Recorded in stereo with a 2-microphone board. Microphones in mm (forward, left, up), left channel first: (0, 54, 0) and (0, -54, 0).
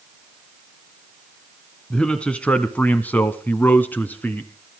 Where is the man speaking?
10° left (ahead or behind), 1.5 m; by 4.5 s 15° left (ahead or behind), 1.7 m.